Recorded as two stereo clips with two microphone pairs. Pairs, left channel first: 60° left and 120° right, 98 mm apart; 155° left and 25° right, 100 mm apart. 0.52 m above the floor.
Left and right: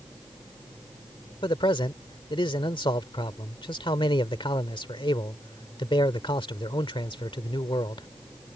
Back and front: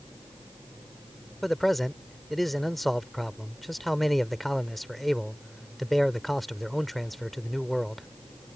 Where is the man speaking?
65° left.